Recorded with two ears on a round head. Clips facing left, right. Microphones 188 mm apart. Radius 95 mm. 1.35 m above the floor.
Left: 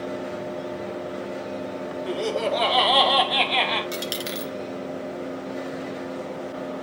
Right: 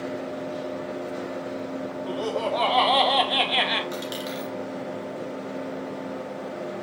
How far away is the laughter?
About 2 m.